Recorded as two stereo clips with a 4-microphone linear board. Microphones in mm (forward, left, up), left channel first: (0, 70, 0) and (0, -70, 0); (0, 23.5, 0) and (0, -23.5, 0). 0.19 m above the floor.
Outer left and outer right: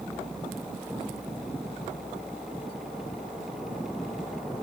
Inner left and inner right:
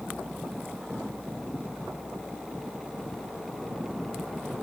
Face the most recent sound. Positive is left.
No sound to turn to.